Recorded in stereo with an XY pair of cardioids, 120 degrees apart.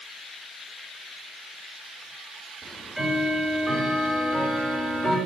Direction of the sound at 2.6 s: 10° right.